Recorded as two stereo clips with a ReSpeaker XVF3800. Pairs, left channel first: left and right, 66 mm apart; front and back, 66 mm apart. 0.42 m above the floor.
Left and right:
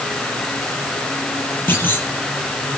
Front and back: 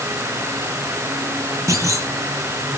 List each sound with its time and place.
1.7 s a clunk: 145° left, 6 m